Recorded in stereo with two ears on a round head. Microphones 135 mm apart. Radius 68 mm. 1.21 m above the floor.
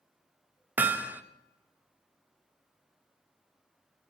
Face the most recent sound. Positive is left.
turn(degrees=-10)  # may be behind; listen again after turning